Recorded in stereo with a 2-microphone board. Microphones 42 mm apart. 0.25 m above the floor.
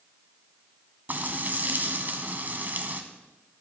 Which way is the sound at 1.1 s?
45° right (ahead or behind).